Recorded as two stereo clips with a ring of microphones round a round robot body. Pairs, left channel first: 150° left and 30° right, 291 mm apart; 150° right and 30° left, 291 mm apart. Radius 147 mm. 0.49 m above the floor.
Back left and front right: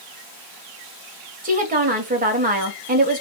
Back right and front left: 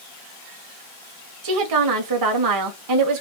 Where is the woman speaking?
30° left, 2.0 m.